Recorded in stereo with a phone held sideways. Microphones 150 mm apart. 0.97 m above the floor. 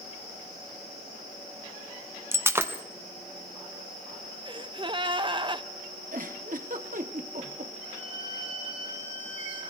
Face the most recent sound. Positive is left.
turn(degrees=-30)  # may be behind; listen again after turning